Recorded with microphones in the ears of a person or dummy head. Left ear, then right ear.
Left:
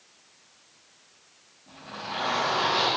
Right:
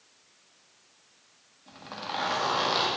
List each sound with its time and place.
1.7 s a zipper: 55° right (ahead or behind), 1.5 m